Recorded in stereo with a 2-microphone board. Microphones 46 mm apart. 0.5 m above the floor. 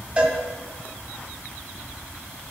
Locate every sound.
0.2 s a cowbell: 20° right (ahead or behind), 1.4 m